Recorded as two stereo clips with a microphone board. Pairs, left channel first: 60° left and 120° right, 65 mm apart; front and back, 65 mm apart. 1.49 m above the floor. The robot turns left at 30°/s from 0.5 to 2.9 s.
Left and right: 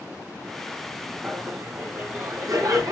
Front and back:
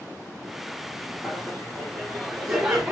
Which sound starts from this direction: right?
Laughter, at 1.2 s.